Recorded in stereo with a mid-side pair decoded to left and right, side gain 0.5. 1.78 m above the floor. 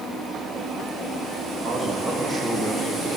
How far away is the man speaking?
About 3.5 m.